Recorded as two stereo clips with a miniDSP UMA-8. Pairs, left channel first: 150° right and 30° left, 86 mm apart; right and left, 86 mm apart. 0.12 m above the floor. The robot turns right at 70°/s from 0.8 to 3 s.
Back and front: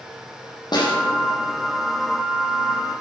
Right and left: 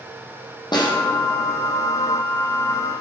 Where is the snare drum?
120° right, 5 m; by 0.9 s 110° right, 5 m.